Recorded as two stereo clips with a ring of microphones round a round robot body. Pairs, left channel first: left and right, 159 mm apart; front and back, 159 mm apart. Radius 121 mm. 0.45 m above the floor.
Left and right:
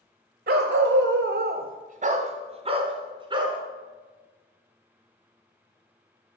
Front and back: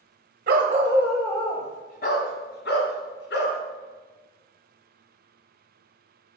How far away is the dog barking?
About 0.8 m.